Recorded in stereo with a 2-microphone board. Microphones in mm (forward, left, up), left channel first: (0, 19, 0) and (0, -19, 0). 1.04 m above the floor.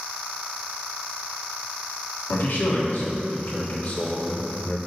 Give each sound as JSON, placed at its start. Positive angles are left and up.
{"t": 2.3, "sound": "a man speaking", "side_deg": 70, "distance_m": 2.5}